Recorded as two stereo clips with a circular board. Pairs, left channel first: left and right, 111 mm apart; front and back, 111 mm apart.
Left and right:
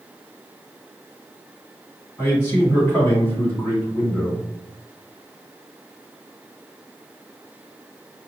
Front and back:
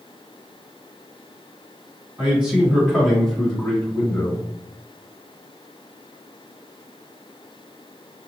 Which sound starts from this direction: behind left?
A man speaking, at 2.2 s.